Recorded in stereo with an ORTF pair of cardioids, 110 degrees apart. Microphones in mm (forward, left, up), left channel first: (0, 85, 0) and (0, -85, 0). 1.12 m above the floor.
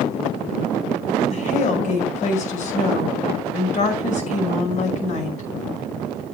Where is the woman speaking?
45° left, 5.5 m.